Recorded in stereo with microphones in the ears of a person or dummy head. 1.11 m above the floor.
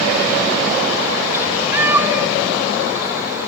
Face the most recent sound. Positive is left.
turn(degrees=-10)  # may be behind; listen again after turning